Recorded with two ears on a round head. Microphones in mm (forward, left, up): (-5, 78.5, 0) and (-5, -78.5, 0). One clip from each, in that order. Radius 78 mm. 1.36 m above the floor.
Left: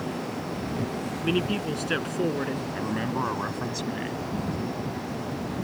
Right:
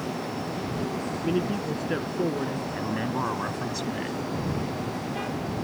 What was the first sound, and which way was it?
A man speaking, 65° left (ahead or behind).